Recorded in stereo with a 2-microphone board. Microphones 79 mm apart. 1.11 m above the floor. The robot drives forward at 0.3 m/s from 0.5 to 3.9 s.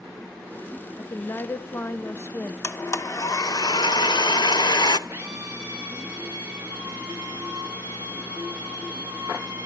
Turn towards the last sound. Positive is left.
turn(degrees=-30)  # may be behind; listen again after turning